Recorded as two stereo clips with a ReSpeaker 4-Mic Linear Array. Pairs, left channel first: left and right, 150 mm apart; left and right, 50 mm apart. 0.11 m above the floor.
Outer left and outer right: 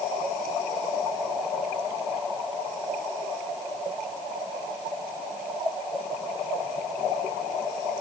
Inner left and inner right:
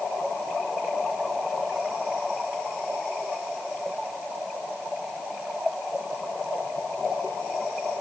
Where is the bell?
No bell in this recording.